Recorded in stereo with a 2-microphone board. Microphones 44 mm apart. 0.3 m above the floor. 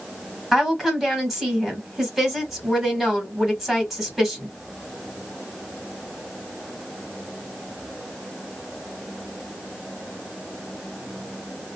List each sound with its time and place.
0.5 s a woman speaking: 10° right (ahead or behind), 1.6 m